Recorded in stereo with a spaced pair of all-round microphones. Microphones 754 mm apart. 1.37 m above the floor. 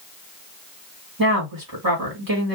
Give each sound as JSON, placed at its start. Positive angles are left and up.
{"t": 1.2, "sound": "a woman speaking", "side_deg": -25, "distance_m": 2.5}